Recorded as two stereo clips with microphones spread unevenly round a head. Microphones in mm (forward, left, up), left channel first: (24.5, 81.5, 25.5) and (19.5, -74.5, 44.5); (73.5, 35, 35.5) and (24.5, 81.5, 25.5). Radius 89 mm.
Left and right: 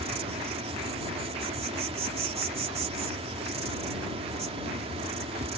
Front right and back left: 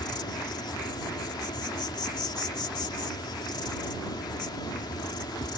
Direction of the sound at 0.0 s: 40° right.